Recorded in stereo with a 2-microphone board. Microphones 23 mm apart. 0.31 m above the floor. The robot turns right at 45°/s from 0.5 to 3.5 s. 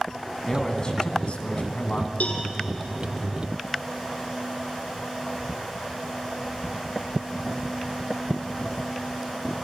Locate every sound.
0.4 s a man speaking: 25° left, 2.5 m; by 2.1 s 95° left, 2.5 m
2.2 s a cowbell: 85° left, 2.5 m